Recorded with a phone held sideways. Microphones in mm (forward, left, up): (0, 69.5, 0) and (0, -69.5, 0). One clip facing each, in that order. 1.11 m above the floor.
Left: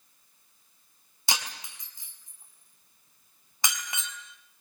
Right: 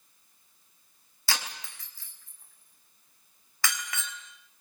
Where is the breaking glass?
20° left (ahead or behind), 4 m.